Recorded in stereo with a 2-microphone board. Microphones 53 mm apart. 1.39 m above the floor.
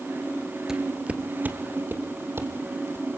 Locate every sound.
0.7 s footsteps: 10° right (ahead or behind), 1.4 m; by 3.1 s 45° right (ahead or behind), 3.5 m